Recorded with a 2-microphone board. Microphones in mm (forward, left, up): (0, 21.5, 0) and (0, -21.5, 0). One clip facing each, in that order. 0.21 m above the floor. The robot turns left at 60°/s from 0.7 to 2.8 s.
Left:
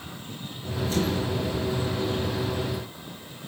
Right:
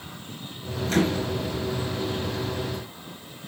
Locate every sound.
0.9 s a microwave: 60° right (ahead or behind), 3 m; by 1.3 s 70° right (ahead or behind), 3 m